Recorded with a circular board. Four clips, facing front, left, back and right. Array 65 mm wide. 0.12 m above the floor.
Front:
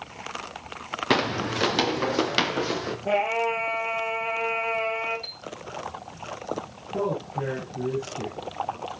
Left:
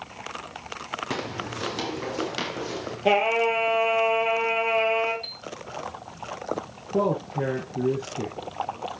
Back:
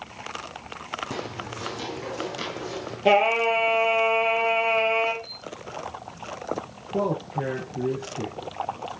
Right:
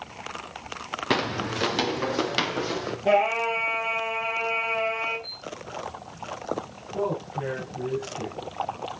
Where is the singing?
150° left, 3.5 m.